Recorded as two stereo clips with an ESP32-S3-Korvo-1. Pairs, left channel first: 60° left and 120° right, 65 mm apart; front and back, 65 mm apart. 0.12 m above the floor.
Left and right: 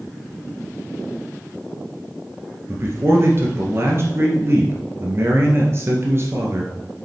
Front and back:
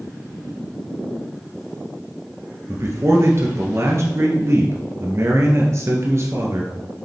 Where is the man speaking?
155° right, 1.9 m.